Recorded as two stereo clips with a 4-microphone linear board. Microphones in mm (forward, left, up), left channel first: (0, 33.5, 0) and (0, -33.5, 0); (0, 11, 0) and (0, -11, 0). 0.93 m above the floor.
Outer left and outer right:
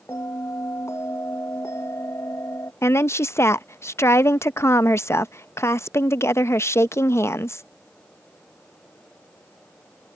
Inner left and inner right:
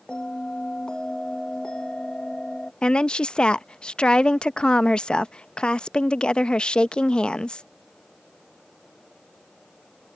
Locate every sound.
0.1 s a bell: 40° left (ahead or behind)
2.8 s a woman speaking: 45° left (ahead or behind)